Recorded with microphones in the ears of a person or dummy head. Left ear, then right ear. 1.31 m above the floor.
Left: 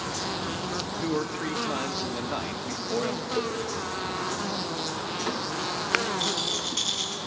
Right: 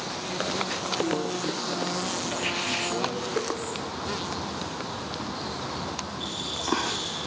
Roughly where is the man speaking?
Left.